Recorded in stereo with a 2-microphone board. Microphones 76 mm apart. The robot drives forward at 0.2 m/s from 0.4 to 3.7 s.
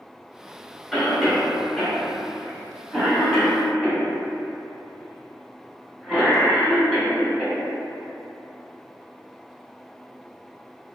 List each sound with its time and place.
0.9 s a cough: centre (ahead or behind), 1.2 m